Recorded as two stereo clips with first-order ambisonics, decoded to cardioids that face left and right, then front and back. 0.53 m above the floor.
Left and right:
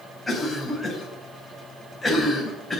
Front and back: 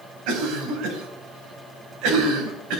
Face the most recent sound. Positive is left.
turn(degrees=175)